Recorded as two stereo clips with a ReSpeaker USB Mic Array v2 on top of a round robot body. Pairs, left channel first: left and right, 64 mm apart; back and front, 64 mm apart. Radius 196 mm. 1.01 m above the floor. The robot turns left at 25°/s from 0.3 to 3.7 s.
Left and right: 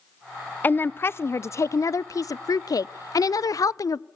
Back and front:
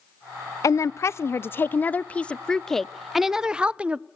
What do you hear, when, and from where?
0.6 s a woman speaking: 150° left, 0.5 m; by 4.1 s 70° left, 0.5 m